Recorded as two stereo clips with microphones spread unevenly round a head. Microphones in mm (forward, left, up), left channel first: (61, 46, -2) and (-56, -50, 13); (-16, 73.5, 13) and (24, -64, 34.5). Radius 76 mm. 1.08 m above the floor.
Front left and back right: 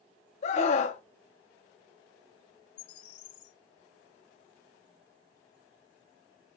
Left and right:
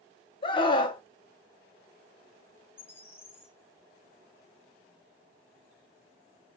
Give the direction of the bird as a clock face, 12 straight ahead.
11 o'clock.